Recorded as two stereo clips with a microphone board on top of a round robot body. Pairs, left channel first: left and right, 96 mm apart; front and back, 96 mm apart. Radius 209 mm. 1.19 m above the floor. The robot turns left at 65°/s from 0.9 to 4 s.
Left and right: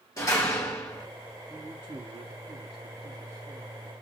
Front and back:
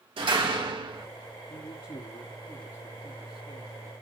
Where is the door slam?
150° left, 1.4 m; by 1.1 s 140° left, 1.4 m.